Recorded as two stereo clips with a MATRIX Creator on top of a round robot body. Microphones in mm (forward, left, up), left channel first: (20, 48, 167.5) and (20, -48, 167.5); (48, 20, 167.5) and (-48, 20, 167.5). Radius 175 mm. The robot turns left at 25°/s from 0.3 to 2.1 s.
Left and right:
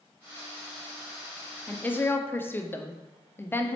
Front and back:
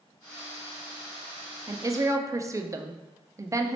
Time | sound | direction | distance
1.7 | a woman speaking | 155° left | 0.6 m